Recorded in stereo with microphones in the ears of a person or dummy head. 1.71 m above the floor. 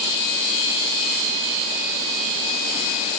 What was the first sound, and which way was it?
Only background noise.